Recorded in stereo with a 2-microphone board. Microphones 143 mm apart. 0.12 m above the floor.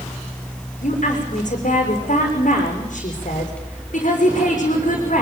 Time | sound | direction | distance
0.8 | a woman speaking | 60° left (ahead or behind) | 7 m